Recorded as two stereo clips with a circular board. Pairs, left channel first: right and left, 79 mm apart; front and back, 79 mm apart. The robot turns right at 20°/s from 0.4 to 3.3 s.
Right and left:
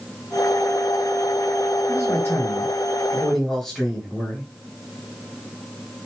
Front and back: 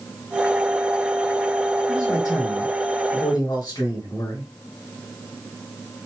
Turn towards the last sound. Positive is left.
turn(degrees=0)